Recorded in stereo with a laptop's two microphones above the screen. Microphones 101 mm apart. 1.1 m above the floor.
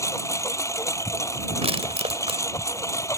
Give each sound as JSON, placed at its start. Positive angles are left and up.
{"t": 0.0, "sound": "a lawn mower", "side_deg": 30}
{"t": 1.6, "sound": "crushing", "side_deg": -70}